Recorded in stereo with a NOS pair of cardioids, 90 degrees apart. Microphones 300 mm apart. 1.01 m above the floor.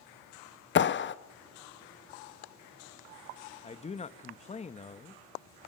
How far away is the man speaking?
About 1.1 m.